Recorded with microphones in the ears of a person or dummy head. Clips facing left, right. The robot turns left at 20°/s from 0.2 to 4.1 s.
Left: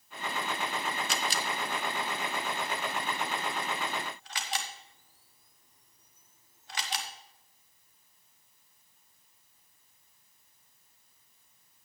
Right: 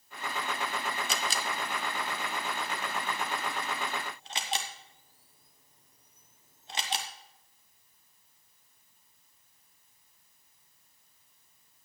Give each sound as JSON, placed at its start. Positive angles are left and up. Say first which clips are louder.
{"t": 1.1, "sound": "a camera shutter", "louder": "left 1 dB", "side_deg": -65, "distance_m": 1.1}